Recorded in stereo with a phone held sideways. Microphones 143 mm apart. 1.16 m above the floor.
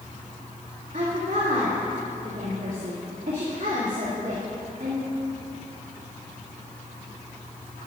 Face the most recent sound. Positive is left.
turn(degrees=-65)  # may be behind; listen again after turning